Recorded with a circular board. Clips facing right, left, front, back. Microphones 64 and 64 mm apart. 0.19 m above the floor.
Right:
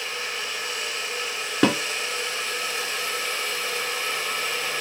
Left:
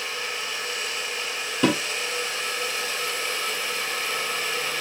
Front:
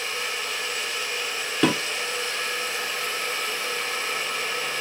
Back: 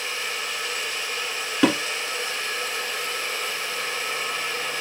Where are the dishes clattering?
100° right, 1.7 m.